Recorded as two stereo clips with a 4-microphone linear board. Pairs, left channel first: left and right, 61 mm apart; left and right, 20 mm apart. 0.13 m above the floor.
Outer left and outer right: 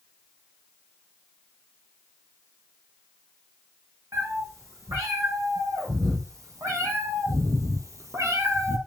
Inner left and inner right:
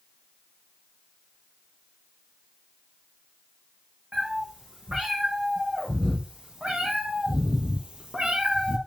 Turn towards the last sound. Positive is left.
turn(degrees=-50)  # may be behind; listen again after turning